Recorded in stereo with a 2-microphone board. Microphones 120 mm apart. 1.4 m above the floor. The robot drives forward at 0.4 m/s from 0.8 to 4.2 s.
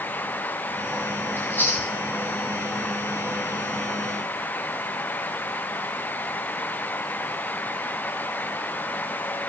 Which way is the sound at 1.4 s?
15° left (ahead or behind).